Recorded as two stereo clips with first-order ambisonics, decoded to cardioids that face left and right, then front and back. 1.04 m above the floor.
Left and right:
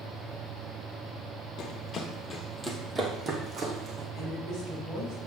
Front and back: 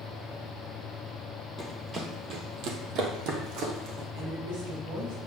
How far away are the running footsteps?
About 1.3 m.